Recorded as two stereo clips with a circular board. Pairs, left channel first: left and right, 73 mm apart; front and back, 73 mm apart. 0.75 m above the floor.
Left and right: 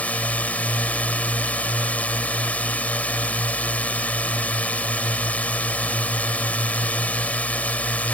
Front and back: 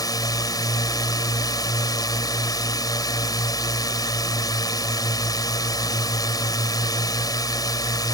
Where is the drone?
20° left.